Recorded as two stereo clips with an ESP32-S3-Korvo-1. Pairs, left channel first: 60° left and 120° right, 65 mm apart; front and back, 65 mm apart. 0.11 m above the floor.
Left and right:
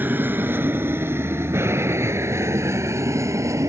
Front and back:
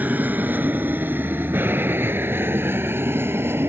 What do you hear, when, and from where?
0.0 s an aircraft: 145° right; by 3.7 s 140° right